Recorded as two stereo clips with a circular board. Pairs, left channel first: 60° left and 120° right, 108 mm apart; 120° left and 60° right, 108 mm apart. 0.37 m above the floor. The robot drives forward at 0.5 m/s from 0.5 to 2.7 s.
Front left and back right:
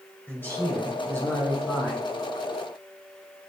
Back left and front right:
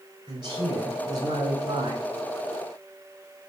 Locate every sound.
0.3 s a man speaking: 10° right, 5 m; by 2.0 s 15° right, 4 m